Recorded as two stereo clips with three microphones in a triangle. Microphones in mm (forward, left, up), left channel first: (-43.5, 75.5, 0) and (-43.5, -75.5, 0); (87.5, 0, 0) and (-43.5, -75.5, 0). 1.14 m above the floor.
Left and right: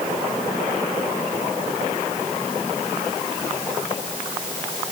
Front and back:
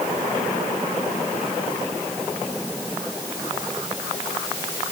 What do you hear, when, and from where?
Only background noise.